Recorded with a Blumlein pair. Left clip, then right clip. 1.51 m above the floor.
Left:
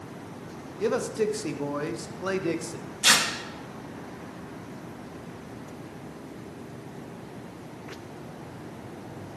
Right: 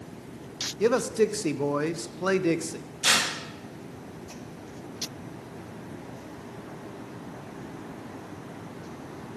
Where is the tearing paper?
15° left, 2 m.